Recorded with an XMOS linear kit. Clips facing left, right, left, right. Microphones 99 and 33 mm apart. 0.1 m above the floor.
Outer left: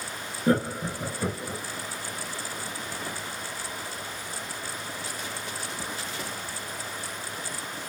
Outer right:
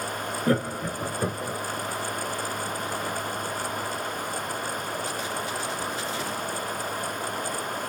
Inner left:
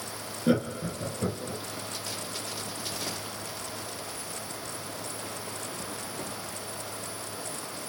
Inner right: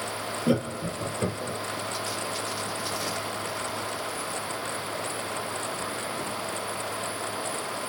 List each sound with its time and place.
0.5 s laughter: 20° left (ahead or behind), 1.6 m; by 1.6 s 25° right (ahead or behind), 1.8 m